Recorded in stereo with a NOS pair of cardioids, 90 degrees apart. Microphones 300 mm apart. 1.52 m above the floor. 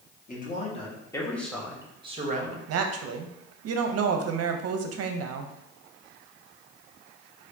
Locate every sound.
0.3 s a man speaking: 30° left, 1.5 m; by 2.6 s 35° right, 1.1 m
2.7 s a woman speaking: 60° right, 0.6 m